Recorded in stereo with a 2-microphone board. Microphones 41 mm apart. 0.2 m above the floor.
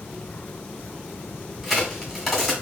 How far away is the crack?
About 1.9 m.